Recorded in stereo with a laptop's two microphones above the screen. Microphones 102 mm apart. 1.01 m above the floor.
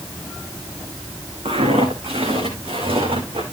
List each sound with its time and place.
1.4 s footsteps: 75° right (ahead or behind), 5 m; by 3.4 s 65° right (ahead or behind), 4 m